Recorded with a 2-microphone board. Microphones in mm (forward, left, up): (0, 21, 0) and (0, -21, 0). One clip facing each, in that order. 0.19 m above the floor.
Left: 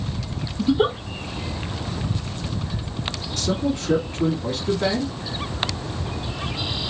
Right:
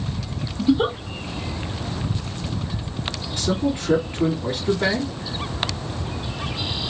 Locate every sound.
0.6 s a giggle: 5° left (ahead or behind), 0.6 m
3.4 s a man speaking: 15° right (ahead or behind), 1.4 m